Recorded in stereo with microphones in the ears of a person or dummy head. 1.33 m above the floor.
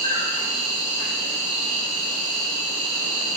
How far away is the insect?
About 1.9 m.